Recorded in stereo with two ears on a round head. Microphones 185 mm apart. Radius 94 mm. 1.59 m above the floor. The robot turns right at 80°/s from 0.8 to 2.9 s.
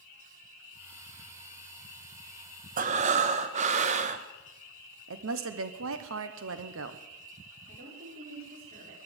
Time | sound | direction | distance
2.8 | breathing | 40° right (ahead or behind) | 0.9 m
5.1 | a woman speaking | 75° right (ahead or behind) | 1.1 m
7.7 | a woman speaking | 45° right (ahead or behind) | 5.5 m